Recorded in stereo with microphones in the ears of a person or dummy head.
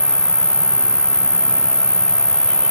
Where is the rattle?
I don't hear a rattle.